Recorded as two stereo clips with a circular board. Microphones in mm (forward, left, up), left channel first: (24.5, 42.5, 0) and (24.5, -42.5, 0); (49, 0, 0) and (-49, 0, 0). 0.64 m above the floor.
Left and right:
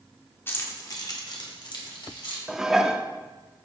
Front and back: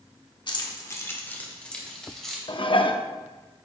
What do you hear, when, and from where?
0.5 s keys jangling: 30° left, 1.2 m; by 2.4 s 90° left, 3 m
2.5 s dishes clattering: 5° right, 0.6 m